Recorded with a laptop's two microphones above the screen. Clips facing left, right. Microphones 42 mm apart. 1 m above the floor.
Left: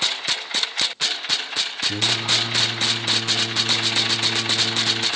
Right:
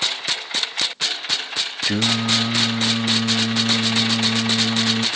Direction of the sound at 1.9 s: 65° right (ahead or behind).